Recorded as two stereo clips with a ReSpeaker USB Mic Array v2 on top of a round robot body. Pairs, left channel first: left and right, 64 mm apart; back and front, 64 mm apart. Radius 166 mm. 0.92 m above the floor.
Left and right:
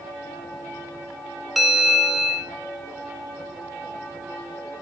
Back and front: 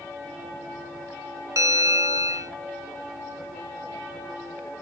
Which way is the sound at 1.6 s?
5° right.